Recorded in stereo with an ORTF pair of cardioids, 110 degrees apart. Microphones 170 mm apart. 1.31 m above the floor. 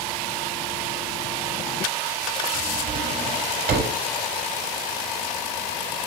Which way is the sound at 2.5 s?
70° right.